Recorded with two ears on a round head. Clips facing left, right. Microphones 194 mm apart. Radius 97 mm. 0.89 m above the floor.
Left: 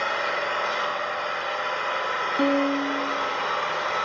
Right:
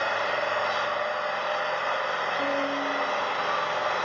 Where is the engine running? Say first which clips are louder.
Right 1 dB; 30° left (ahead or behind), 3 m.